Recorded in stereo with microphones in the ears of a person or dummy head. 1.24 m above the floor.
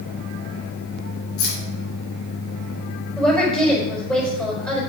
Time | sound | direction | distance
1.4 | keys jangling | 75° left (ahead or behind) | 3.5 m
3.2 | a woman speaking | 10° left (ahead or behind) | 5 m